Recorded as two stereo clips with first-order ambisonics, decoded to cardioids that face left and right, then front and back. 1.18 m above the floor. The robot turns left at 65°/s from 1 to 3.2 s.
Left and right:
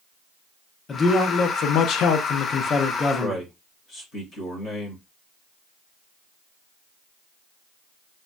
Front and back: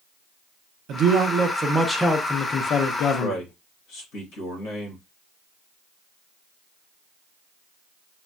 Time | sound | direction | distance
0.9 | a man speaking | 150° left | 0.5 m
3.2 | a man speaking | 35° left | 1.3 m